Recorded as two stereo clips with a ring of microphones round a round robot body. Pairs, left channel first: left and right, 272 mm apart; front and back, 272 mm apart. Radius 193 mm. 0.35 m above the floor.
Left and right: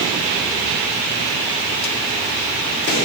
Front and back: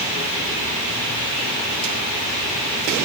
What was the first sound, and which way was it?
Only background noise.